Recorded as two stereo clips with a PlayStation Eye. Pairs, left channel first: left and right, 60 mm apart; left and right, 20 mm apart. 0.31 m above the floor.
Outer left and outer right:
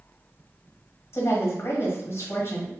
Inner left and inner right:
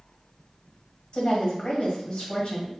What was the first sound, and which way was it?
A woman speaking, 45° left (ahead or behind).